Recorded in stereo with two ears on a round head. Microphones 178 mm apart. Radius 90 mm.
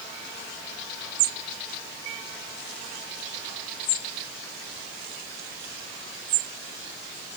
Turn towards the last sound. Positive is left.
No sound to turn to.